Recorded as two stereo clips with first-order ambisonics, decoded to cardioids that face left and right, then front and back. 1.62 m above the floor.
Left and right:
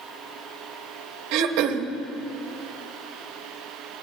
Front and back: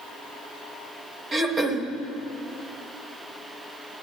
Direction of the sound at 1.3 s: 105° right.